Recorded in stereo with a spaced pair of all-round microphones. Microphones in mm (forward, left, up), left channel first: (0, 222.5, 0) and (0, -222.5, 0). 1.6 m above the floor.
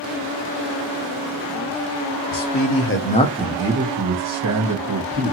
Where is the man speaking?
50° left (ahead or behind), 0.7 m; by 5.3 s 50° right (ahead or behind), 1.2 m.